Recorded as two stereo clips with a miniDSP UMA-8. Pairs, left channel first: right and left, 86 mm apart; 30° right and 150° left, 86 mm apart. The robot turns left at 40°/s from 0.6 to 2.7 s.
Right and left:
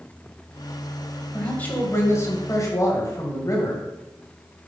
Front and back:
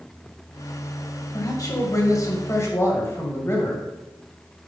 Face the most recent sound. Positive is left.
turn(degrees=-70)